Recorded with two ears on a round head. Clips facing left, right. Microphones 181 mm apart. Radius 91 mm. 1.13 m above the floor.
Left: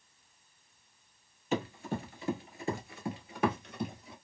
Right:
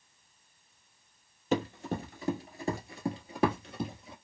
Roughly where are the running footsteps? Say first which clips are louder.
Right 3 dB; right.